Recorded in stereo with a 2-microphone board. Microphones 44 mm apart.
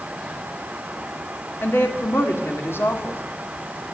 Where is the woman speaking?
65° left (ahead or behind), 1.9 m.